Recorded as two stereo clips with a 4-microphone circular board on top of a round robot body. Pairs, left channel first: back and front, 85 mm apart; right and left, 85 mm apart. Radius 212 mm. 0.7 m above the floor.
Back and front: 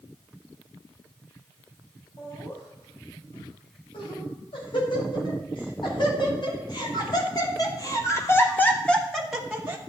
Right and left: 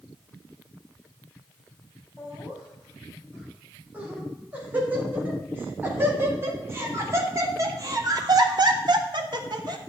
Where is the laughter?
165° left, 7 m; by 9.8 s 70° left, 1.7 m.